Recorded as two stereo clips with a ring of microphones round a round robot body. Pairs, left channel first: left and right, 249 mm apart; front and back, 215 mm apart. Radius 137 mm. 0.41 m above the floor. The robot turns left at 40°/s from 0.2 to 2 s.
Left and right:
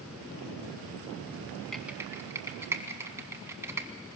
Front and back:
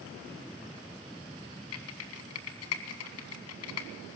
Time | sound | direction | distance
1.7 | typing on a keyboard | straight ahead | 1.6 m